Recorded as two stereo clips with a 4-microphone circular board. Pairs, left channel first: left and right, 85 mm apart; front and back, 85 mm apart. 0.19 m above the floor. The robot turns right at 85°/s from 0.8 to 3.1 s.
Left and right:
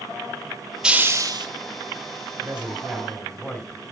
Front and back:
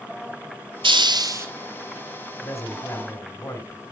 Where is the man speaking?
35° right, 1.9 m; by 3.8 s 25° left, 1.9 m.